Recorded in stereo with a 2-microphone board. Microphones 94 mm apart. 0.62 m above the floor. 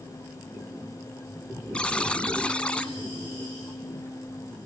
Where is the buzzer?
10° left (ahead or behind), 1.2 m.